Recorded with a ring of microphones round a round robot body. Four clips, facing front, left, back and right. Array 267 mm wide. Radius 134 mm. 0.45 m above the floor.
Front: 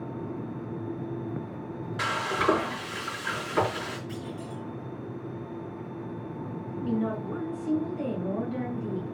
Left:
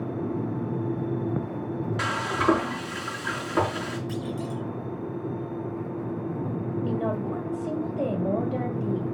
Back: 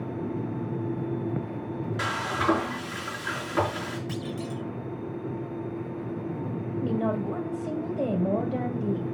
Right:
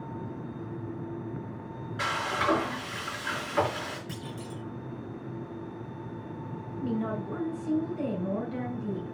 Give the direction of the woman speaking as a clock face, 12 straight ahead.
7 o'clock.